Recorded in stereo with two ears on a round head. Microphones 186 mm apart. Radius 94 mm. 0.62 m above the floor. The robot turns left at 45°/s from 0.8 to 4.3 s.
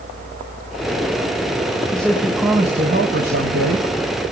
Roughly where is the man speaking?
Ahead.